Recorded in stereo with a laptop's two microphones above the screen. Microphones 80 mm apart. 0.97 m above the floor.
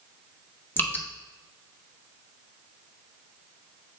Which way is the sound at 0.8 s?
25° left (ahead or behind).